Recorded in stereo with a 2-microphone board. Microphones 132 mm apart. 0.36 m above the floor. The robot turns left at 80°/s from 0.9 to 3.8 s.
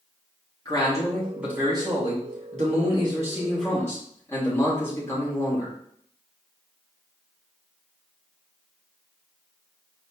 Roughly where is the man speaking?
Ahead left.